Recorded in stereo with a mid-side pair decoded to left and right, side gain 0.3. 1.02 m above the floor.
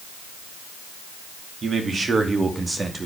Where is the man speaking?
60° right, 2.5 m; by 3.1 s 30° right, 2.5 m.